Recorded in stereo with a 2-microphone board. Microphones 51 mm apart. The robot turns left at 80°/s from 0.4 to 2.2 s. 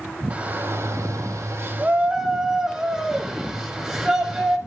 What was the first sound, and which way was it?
A shout, 30° right.